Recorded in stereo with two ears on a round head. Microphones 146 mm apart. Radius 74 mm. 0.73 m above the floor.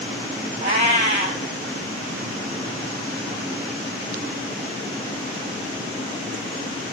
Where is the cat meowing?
45° right (ahead or behind), 1.9 m.